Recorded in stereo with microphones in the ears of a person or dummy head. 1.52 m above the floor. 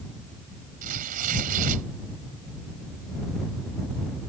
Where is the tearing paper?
50° right (ahead or behind).